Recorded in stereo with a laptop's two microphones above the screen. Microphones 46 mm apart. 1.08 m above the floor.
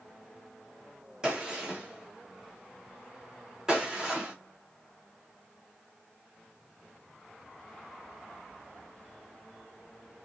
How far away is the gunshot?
About 0.8 m.